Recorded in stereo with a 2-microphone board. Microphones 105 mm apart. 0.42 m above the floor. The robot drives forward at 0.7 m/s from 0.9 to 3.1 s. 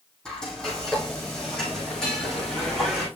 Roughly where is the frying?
Centre.